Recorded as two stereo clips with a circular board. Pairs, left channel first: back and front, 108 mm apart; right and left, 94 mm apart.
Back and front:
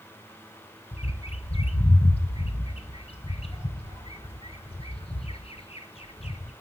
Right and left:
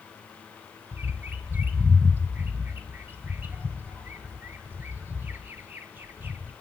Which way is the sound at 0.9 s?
160° left.